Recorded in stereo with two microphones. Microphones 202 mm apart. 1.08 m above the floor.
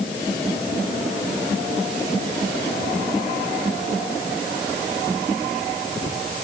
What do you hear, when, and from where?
Only background noise.